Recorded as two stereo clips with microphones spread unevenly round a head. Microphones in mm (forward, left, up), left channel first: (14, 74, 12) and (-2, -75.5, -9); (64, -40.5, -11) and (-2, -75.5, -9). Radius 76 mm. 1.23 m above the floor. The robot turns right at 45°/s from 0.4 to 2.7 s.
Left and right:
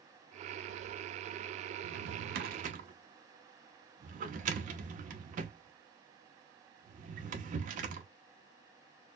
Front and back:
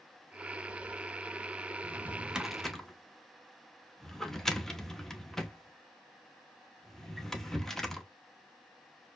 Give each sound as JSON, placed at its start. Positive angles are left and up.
{"t": 1.8, "sound": "a drawer", "azimuth_deg": -95, "distance_m": 0.9}